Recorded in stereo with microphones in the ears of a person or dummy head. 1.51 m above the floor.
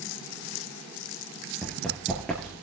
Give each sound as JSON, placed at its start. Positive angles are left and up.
{"t": 1.6, "sound": "running footsteps", "side_deg": 0, "distance_m": 1.7}